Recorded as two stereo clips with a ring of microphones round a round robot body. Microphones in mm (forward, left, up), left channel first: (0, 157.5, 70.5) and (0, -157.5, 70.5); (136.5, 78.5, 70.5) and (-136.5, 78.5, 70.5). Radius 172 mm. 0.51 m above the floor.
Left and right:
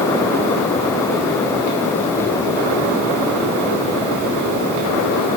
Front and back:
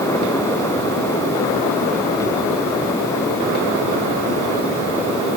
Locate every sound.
Only background noise.